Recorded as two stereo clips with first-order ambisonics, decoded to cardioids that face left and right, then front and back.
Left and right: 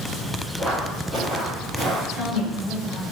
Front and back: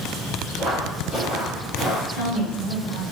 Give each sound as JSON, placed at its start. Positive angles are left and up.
{"t": 0.6, "sound": "footsteps", "azimuth_deg": -150, "distance_m": 1.9}
{"t": 2.1, "sound": "a woman speaking", "azimuth_deg": -30, "distance_m": 1.2}